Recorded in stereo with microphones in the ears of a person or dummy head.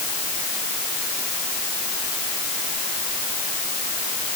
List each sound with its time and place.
Only background noise.